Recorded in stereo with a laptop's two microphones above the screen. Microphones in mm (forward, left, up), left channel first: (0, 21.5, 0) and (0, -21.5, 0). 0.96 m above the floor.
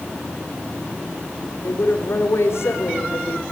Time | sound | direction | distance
1.6 | a woman speaking | 70° left (ahead or behind) | 3.5 m